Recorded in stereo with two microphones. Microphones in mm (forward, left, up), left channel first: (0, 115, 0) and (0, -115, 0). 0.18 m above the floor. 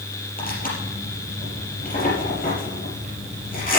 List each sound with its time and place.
0.4 s tearing paper: 40° left (ahead or behind), 4.5 m